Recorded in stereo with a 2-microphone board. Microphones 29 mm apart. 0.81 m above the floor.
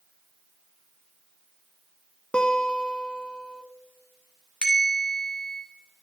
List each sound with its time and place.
2.3 s a guitar: 35° left (ahead or behind), 0.6 m
4.6 s a bell: 40° left (ahead or behind), 1.5 m